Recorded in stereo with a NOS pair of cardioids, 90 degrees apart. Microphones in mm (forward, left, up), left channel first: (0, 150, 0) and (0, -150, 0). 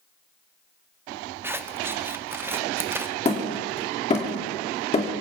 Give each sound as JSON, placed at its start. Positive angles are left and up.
{"t": 1.4, "sound": "scissors", "azimuth_deg": -10, "distance_m": 0.8}
{"t": 3.2, "sound": "hammering", "azimuth_deg": 20, "distance_m": 3.0}